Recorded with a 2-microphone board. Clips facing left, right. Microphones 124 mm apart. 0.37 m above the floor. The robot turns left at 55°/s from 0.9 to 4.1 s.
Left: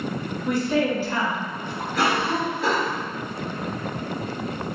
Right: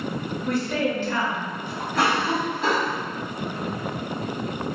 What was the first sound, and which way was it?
A woman speaking, 25° left.